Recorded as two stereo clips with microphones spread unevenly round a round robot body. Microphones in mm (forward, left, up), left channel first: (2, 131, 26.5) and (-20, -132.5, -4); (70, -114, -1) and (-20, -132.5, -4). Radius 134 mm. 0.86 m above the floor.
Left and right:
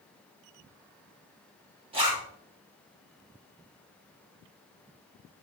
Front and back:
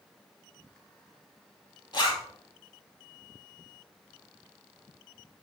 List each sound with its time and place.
1.9 s a zipper: 25° right, 3 m